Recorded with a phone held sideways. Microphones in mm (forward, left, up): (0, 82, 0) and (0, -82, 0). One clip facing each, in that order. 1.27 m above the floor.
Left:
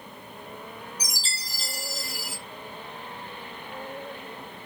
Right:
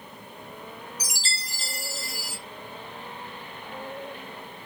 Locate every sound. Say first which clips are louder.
1.0 s a chime: right 1 dB; 70° right (ahead or behind), 1.4 m